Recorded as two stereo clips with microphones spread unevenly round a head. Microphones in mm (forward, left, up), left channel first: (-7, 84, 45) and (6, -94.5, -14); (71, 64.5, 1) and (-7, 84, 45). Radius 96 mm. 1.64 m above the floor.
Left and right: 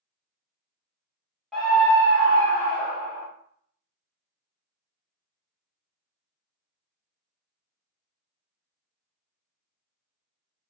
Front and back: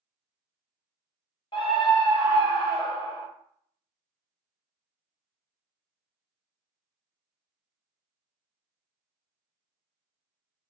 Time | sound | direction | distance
1.5 | a scream | 5° left | 1.2 m